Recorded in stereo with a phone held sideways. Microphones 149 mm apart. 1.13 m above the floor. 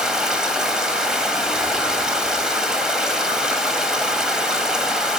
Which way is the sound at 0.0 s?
5° right (ahead or behind).